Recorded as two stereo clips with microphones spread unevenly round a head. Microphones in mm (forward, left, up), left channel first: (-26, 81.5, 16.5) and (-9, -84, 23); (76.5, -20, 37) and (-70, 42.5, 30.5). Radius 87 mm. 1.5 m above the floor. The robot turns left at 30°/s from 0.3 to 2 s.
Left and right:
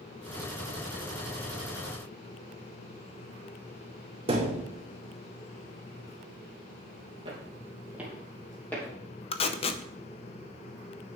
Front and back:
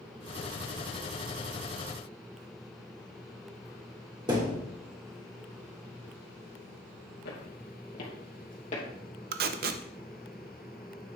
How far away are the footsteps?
About 2.5 m.